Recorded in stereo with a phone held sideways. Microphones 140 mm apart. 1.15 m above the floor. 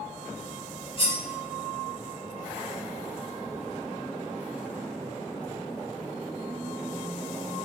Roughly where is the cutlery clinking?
Left.